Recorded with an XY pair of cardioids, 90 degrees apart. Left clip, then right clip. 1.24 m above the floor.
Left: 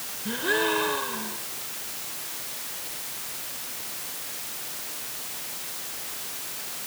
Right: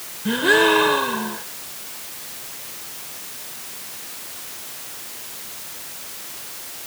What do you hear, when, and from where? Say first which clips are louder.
0.2 s a gasp: right 9 dB; 65° right